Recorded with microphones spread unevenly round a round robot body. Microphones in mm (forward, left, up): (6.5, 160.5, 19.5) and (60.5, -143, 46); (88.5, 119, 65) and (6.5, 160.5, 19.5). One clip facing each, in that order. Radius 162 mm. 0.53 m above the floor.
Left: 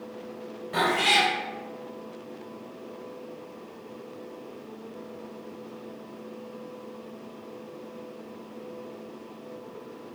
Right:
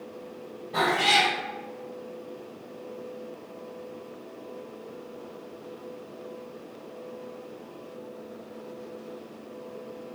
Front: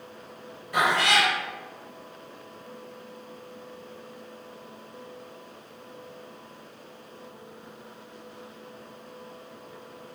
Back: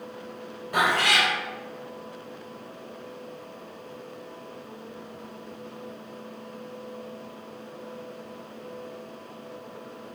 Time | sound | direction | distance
0.7 | a cat meowing | 125° left | 1.9 m